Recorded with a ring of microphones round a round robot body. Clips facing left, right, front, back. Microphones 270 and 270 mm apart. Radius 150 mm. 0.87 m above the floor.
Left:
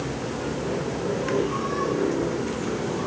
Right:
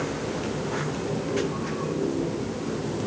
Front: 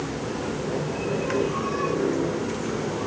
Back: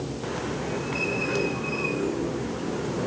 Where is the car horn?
No car horn in this recording.